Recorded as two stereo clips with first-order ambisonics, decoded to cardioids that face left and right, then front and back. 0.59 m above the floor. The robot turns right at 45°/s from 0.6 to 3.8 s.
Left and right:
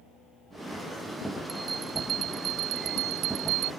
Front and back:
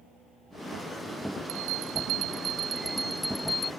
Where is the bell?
170° right; by 3.7 s 70° right.